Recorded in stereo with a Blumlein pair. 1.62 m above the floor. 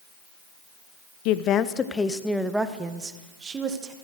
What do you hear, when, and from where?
1.2 s a woman speaking: 45° left, 0.8 m; by 3.9 s 25° right, 1.8 m